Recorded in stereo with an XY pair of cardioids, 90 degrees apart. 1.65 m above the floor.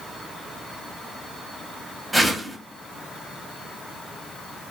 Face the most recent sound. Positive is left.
turn(degrees=-5)